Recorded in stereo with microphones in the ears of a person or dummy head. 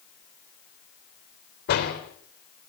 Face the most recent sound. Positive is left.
turn(degrees=60)  # may be behind; listen again after turning